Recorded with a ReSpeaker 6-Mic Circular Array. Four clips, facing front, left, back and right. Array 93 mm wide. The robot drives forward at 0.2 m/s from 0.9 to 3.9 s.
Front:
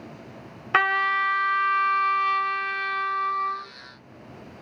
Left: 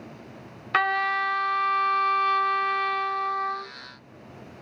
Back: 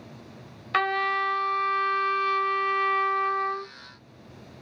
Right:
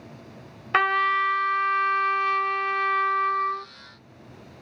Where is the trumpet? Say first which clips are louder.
Right 2 dB, front 2 dB; 20° right, 0.7 m; by 3.7 s 155° right, 0.7 m.